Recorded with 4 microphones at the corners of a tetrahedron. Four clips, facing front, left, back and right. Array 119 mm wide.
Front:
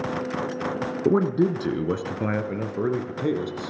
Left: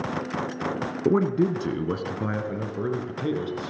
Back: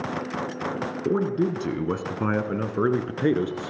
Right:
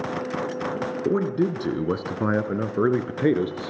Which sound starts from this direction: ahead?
A man speaking, at 1.1 s.